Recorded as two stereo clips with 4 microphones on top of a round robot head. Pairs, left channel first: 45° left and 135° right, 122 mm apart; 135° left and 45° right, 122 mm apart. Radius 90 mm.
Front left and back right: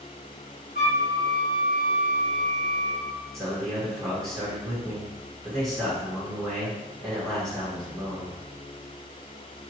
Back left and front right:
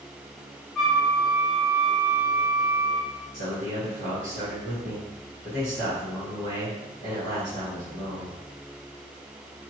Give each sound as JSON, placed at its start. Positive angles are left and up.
{"t": 0.8, "sound": "a flute", "azimuth_deg": -140, "distance_m": 0.9}
{"t": 3.3, "sound": "a man speaking", "azimuth_deg": -45, "distance_m": 1.8}